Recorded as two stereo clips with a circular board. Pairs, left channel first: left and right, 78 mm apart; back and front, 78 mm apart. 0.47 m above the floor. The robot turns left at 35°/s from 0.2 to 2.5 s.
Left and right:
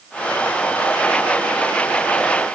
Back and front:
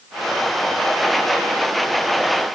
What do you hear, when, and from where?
Only background noise.